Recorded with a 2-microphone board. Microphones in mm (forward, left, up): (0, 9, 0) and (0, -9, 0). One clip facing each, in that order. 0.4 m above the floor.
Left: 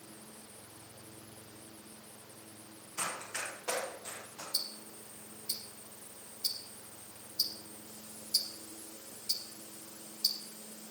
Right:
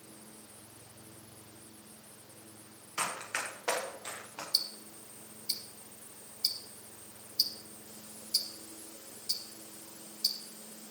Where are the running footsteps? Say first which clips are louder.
Right 3 dB; 60° right (ahead or behind), 6 m; by 4.4 s 75° right (ahead or behind), 4.5 m.